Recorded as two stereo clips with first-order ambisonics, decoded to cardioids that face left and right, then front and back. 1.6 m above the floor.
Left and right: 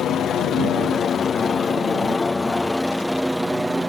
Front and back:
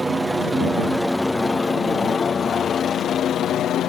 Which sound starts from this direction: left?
A helicopter, at 0.0 s.